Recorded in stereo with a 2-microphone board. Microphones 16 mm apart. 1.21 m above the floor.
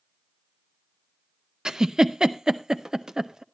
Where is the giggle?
50° right (ahead or behind), 0.6 m.